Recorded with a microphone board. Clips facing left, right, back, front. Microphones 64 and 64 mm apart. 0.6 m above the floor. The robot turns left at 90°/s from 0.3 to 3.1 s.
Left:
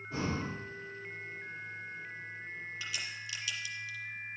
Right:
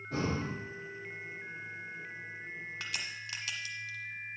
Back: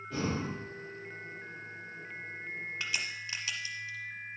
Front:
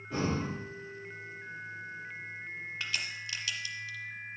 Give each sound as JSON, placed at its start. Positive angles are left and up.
{"t": 0.1, "sound": "breathing", "azimuth_deg": -75, "distance_m": 4.5}
{"t": 2.8, "sound": "a crack", "azimuth_deg": -90, "distance_m": 1.2}